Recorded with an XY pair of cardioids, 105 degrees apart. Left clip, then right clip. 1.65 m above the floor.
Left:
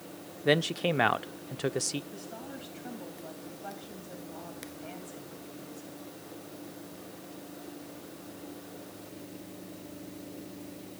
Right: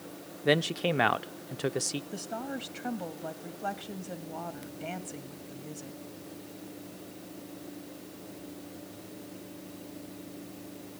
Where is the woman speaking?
60° right, 2.5 m.